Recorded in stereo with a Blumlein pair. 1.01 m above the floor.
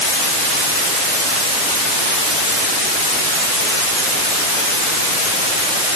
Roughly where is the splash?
I don't hear a splash.